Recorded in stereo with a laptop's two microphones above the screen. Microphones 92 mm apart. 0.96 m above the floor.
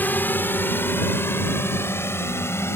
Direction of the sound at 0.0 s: 20° left (ahead or behind).